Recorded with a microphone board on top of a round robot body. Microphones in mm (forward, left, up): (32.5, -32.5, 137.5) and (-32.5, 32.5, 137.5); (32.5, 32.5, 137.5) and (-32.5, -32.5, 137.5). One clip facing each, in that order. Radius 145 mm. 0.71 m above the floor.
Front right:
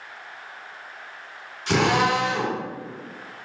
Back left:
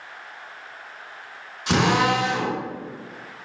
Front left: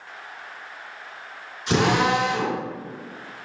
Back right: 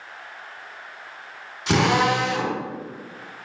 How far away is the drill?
About 3 m.